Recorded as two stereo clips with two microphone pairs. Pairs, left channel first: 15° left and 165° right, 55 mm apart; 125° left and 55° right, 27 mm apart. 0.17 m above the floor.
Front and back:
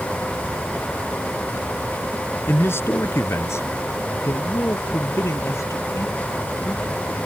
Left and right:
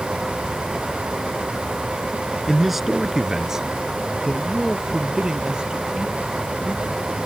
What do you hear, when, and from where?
2.5 s a man speaking: 25° left; by 7.2 s 10° right